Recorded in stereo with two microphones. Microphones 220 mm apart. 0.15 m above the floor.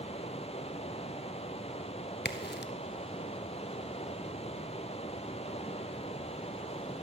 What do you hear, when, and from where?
0.0 s running water: 30° left (ahead or behind), 0.7 m
2.2 s a crack: 50° left (ahead or behind), 0.6 m